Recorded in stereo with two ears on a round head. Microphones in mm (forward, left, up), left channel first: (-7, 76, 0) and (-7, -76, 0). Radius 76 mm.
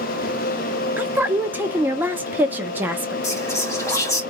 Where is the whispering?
20° left (ahead or behind), 1.7 m.